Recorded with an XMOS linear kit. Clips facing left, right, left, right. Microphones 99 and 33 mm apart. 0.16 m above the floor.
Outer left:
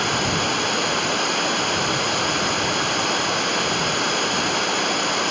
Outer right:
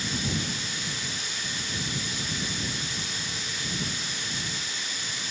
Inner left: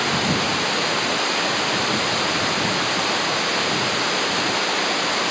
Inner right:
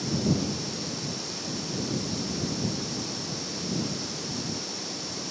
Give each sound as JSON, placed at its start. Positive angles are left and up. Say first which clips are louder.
{"t": 0.0, "sound": "running water", "louder": "outer left 10 dB, inner left 7 dB", "side_deg": 60}